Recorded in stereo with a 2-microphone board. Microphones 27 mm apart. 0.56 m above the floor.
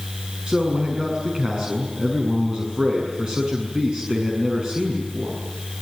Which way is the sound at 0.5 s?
35° right (ahead or behind).